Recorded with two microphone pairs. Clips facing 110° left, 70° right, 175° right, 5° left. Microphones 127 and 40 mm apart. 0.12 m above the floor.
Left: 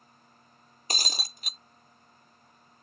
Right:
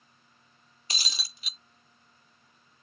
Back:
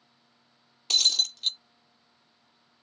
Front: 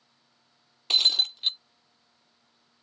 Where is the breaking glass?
70° left.